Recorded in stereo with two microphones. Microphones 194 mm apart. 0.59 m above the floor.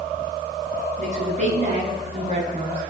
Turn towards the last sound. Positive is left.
turn(degrees=-40)  # may be behind; listen again after turning